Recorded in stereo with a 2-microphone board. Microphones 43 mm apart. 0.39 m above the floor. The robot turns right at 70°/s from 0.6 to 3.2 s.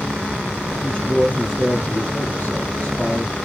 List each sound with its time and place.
0.8 s a man speaking: 10° left, 3.5 m; by 3.4 s straight behind, 3.5 m